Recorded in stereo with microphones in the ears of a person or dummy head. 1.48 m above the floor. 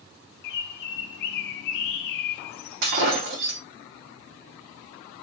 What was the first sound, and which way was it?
A bird, 55° left (ahead or behind).